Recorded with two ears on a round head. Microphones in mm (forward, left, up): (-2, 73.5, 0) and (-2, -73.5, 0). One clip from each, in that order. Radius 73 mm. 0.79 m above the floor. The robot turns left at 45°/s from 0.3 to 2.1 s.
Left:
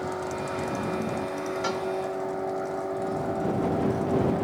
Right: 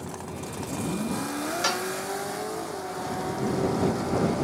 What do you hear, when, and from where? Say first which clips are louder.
1.6 s a cowbell: right 4 dB; 50° right (ahead or behind); by 1.9 s 60° right (ahead or behind)